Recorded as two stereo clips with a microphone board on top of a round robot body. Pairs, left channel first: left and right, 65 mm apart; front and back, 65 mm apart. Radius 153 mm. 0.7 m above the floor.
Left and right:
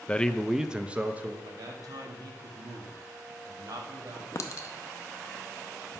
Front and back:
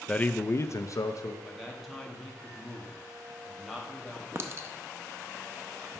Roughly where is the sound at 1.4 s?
Right.